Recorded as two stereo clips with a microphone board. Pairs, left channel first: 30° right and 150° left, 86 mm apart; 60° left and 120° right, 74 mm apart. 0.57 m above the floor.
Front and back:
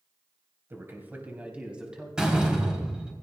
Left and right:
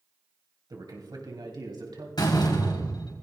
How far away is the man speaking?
About 3 m.